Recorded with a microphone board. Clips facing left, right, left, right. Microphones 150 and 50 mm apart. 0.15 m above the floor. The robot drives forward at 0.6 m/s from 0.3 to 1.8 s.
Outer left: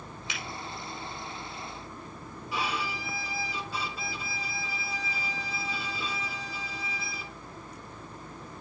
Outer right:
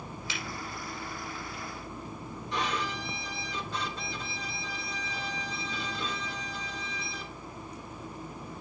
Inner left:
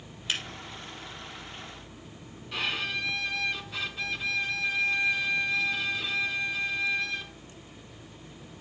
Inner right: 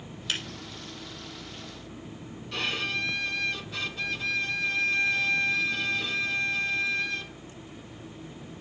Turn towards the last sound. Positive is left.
turn(degrees=5)  # may be behind; listen again after turning